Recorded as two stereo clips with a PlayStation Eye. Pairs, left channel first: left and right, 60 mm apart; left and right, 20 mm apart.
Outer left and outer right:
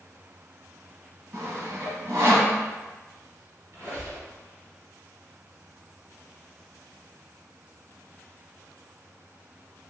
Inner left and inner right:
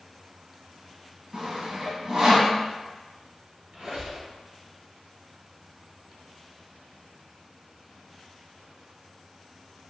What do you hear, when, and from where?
1.3 s sawing: 45° right (ahead or behind), 1.3 m
3.7 s a squeak: 50° right (ahead or behind), 1.8 m